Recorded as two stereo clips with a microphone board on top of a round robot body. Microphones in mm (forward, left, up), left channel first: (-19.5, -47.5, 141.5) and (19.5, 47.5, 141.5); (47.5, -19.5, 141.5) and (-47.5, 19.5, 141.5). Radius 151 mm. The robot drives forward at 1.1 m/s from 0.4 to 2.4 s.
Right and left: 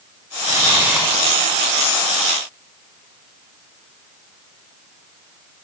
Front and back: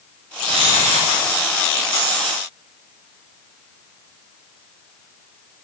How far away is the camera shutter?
About 1.1 m.